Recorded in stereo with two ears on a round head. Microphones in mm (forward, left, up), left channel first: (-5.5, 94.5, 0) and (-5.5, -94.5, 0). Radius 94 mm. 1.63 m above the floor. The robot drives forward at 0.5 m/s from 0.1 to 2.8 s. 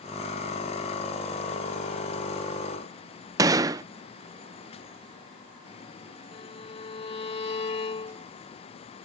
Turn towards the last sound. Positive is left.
turn(degrees=30)  # may be behind; listen again after turning